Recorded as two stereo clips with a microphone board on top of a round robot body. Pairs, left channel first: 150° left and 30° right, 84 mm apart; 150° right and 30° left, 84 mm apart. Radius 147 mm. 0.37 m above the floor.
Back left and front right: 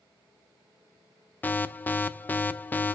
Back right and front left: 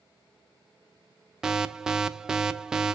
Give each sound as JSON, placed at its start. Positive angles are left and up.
{"t": 1.4, "sound": "an alarm", "azimuth_deg": 105, "distance_m": 0.8}